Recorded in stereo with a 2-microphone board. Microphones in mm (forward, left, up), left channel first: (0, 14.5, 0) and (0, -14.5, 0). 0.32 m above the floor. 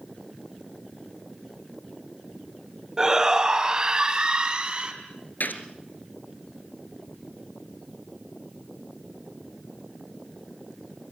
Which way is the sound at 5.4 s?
85° left.